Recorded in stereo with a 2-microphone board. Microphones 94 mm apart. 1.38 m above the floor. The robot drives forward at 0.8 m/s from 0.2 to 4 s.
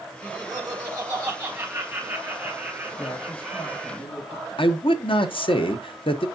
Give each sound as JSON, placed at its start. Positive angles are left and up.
{"t": 0.2, "sound": "laughter", "side_deg": -50, "distance_m": 1.9}
{"t": 3.0, "sound": "a woman speaking", "side_deg": 80, "distance_m": 6.0}
{"t": 4.6, "sound": "a man speaking", "side_deg": 70, "distance_m": 0.9}